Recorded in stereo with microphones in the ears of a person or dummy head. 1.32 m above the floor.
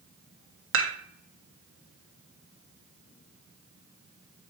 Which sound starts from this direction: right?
Dishes clattering, at 0.7 s.